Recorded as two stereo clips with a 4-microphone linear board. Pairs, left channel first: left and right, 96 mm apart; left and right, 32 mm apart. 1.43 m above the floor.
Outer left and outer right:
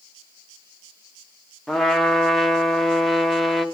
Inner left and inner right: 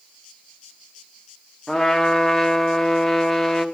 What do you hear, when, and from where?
1.7 s a trumpet: centre (ahead or behind), 0.9 m